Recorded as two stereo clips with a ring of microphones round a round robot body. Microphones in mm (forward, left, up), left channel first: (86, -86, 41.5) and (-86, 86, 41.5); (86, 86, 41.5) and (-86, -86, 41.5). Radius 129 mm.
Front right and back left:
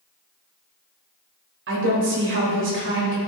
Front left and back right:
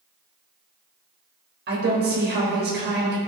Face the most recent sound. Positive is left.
turn(degrees=175)